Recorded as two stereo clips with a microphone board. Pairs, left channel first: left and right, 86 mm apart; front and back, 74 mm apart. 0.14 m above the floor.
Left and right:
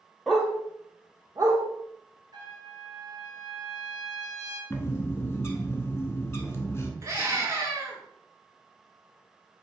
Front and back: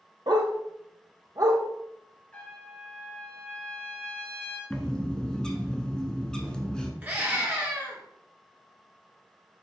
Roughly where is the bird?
Left.